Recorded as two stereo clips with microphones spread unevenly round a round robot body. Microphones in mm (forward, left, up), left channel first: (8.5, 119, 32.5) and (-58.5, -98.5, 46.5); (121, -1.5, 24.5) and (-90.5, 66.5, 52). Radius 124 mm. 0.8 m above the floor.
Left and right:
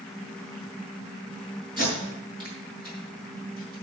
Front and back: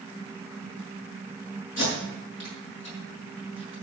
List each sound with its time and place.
1.8 s tape being pulled: 35° right, 5.5 m